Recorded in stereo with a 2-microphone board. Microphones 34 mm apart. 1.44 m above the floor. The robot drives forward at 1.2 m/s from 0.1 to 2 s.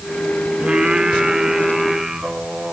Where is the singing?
25° right (ahead or behind), 1.1 m; by 2.7 s 15° right (ahead or behind), 1.9 m.